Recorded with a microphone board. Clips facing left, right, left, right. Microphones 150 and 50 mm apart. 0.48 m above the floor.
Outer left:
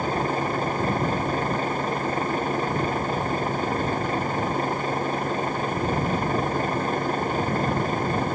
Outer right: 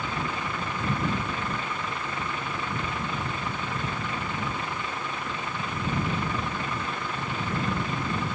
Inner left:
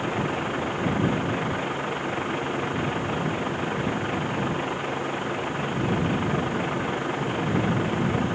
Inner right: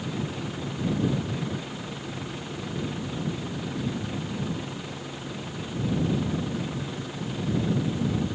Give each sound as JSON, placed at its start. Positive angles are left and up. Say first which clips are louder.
{"t": 0.0, "sound": "a vehicle", "louder": "outer left 7 dB, inner left 6 dB", "side_deg": 40}